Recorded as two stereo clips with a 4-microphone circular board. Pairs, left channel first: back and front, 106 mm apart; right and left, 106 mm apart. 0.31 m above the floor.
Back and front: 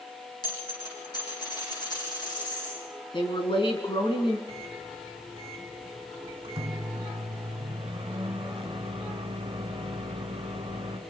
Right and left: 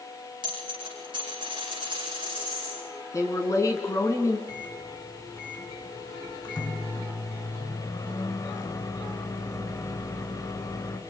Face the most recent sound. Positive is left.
turn(degrees=-40)